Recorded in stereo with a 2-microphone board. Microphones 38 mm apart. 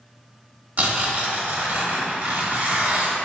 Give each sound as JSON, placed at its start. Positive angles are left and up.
{"t": 0.8, "sound": "tearing paper", "side_deg": -55, "distance_m": 0.8}